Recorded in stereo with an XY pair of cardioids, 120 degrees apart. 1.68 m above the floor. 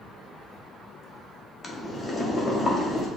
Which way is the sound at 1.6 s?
15° left.